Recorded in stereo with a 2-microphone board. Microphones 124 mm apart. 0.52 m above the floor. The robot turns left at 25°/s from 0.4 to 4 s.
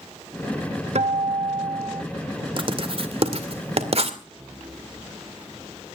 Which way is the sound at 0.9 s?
60° right (ahead or behind).